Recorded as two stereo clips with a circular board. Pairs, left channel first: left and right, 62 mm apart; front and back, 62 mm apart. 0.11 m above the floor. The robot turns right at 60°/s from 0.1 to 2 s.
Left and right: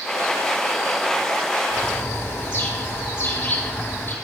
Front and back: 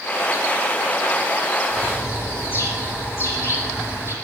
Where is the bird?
15° left, 4.5 m; by 4.1 s 35° left, 4.5 m.